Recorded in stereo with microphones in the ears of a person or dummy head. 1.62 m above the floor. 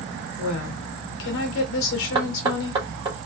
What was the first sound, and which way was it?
A woman speaking, 80° left.